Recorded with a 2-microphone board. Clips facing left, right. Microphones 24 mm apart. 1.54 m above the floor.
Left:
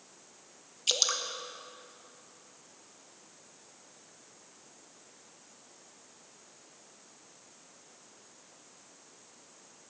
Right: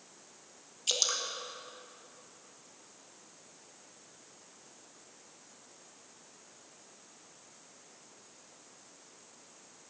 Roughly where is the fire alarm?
I don't hear a fire alarm.